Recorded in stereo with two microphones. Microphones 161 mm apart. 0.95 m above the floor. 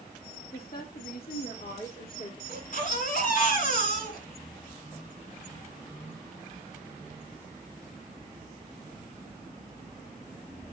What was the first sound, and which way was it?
A woman speaking, 70° left (ahead or behind).